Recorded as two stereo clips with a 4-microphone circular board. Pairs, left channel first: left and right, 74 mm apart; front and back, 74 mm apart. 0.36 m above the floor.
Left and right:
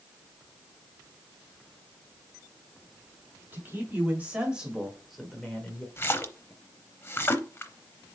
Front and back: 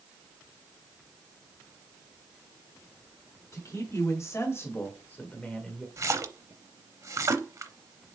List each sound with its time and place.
3.5 s a man speaking: 35° right, 2.5 m; by 5.9 s 85° left, 1.5 m
6.0 s a splash: 140° left, 0.7 m